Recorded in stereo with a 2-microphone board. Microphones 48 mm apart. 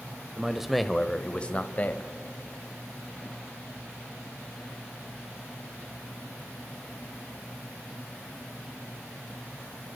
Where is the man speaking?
15° right (ahead or behind), 1.0 m; by 2.1 s 35° left (ahead or behind), 1.3 m.